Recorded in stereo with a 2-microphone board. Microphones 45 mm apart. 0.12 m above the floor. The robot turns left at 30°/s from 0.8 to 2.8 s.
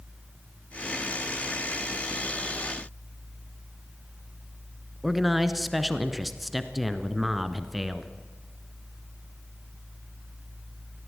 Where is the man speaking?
5° right (ahead or behind), 1.1 m.